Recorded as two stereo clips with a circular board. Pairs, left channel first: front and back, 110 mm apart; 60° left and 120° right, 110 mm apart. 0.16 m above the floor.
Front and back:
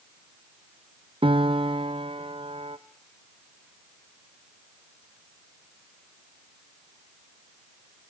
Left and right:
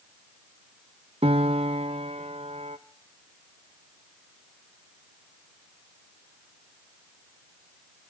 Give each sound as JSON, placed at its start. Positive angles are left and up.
{"t": 1.2, "sound": "a piano", "azimuth_deg": -145, "distance_m": 1.1}